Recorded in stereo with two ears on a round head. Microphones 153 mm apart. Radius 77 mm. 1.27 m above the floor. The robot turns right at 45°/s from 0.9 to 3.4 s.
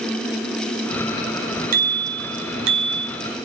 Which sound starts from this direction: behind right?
A bicycle bell, at 1.7 s.